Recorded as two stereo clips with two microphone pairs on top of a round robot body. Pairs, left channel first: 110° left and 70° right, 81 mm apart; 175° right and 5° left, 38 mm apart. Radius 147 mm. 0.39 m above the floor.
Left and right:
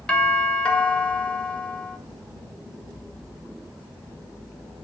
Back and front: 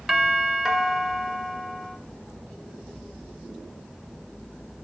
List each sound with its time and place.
0.1 s a doorbell: 95° left, 1.8 m